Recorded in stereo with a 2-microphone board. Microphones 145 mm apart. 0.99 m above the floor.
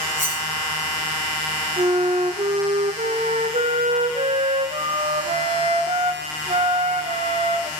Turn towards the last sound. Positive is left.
turn(degrees=-45)  # may be behind; listen again after turning